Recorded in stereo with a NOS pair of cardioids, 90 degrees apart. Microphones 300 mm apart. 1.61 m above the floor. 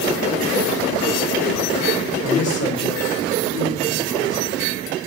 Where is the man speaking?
70° left, 3.5 m; by 4.5 s 80° left, 5 m.